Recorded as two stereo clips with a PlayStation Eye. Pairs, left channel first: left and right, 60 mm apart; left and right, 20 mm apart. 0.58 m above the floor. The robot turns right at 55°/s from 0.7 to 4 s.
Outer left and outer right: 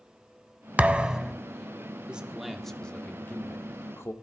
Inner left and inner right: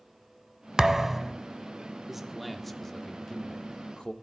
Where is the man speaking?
25° right, 0.9 m; by 4.1 s 80° left, 0.9 m.